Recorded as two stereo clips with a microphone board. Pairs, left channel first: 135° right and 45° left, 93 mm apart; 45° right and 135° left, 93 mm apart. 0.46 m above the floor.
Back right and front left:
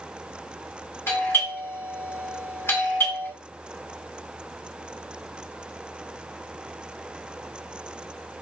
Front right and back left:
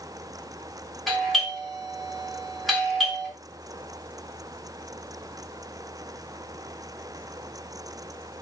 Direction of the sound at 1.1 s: 135° right.